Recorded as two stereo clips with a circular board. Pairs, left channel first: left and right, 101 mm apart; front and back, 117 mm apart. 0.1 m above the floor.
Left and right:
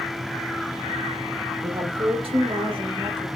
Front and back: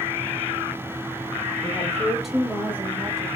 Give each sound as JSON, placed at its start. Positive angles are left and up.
{"t": 1.6, "sound": "a woman speaking", "azimuth_deg": -75, "distance_m": 3.5}